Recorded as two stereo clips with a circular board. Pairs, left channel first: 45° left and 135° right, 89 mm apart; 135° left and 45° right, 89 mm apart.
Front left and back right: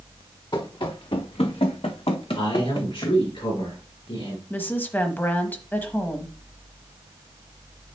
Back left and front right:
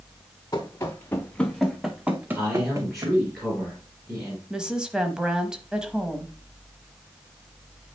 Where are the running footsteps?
85° left, 1.2 m; by 3.2 s straight ahead, 1.3 m.